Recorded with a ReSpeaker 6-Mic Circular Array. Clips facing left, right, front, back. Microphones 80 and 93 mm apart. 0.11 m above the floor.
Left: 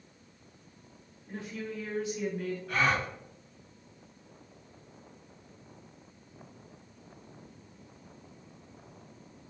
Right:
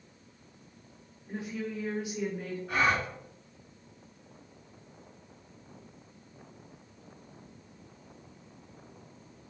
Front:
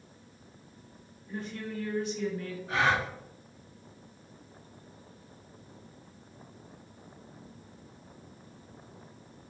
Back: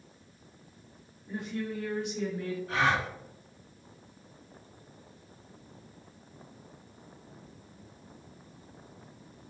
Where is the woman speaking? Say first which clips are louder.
Right 2 dB, back 3 dB; 140° right, 1.6 m.